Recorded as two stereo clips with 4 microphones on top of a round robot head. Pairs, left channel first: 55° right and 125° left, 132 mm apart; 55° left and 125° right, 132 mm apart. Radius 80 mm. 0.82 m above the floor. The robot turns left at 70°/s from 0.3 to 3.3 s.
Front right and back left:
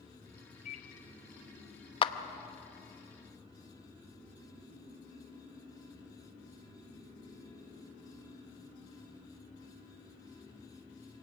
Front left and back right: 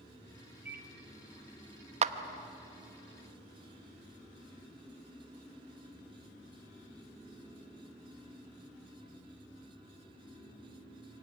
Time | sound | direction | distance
0.7 | a microwave | 45° right | 1.5 m
2.0 | a clap | 100° right | 0.9 m